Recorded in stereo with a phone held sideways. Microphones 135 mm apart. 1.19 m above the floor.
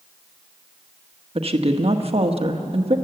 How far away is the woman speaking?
About 1.3 m.